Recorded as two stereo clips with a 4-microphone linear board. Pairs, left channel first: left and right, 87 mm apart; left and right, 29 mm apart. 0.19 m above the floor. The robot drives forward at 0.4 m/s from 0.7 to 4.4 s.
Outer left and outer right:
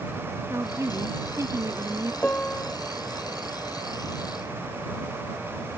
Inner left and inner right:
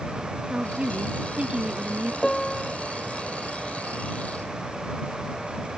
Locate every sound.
0.5 s a woman speaking: 35° right (ahead or behind); by 2.1 s 40° right (ahead or behind)
2.2 s a piano: 15° left (ahead or behind)